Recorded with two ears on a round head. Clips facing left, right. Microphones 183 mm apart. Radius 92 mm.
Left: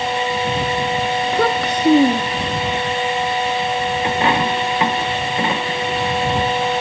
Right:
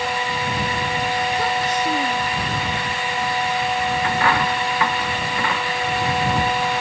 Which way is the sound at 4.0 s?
20° left (ahead or behind).